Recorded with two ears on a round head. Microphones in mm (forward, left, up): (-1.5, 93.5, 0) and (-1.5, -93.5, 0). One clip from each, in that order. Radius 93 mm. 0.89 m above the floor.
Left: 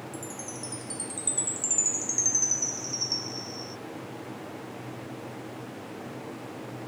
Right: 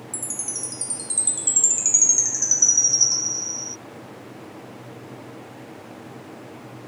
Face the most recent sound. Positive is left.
turn(degrees=-35)  # may be behind; listen again after turning